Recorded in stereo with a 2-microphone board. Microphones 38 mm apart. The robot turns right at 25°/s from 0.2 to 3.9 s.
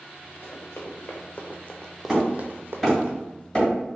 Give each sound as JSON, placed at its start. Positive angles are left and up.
{"t": 0.4, "sound": "running footsteps", "side_deg": 75, "distance_m": 1.5}
{"t": 2.1, "sound": "hammering", "side_deg": -5, "distance_m": 1.9}